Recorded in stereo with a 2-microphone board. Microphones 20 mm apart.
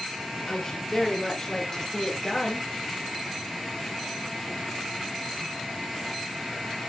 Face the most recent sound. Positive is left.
turn(degrees=20)  # may be behind; listen again after turning